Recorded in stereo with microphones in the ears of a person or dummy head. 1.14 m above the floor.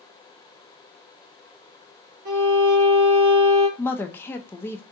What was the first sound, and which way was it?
A violin, 50° right (ahead or behind).